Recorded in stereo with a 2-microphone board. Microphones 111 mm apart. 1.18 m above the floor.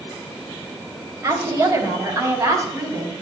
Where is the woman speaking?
35° right (ahead or behind), 2.5 m.